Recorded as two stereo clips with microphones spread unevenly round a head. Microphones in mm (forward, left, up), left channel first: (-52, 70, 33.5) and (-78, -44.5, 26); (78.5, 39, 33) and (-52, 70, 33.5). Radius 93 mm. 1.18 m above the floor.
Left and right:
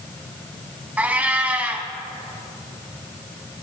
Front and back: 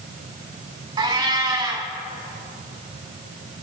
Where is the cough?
No cough in this recording.